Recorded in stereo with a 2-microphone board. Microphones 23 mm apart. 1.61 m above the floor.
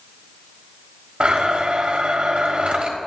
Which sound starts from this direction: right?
A blender, at 1.2 s.